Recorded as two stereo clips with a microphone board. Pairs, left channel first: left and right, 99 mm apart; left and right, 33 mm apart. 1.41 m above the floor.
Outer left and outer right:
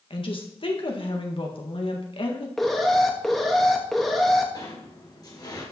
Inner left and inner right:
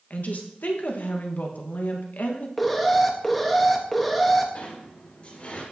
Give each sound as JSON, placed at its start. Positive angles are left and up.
{"t": 0.1, "sound": "a woman speaking", "side_deg": 55, "distance_m": 1.6}
{"t": 2.6, "sound": "an alarm", "side_deg": 0, "distance_m": 1.2}
{"t": 4.5, "sound": "a sliding door", "side_deg": 40, "distance_m": 3.5}